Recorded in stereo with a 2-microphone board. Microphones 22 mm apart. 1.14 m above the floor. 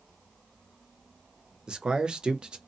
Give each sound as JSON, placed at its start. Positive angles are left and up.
{"t": 1.7, "sound": "a man speaking", "side_deg": -40, "distance_m": 0.6}